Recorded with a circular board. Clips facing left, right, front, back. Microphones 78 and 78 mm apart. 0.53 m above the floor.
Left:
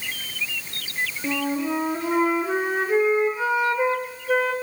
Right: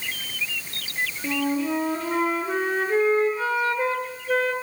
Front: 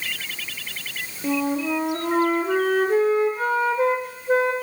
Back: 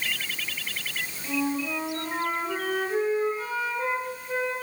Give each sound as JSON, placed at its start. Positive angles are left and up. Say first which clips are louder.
{"t": 1.2, "sound": "a flute", "louder": "right 1 dB, front 5 dB", "azimuth_deg": 15, "distance_m": 0.9}